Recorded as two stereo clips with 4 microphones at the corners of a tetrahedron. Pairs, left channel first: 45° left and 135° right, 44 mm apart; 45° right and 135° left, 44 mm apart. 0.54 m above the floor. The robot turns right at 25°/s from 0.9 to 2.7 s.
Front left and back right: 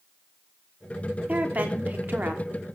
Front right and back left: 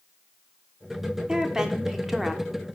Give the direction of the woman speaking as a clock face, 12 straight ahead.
5 o'clock.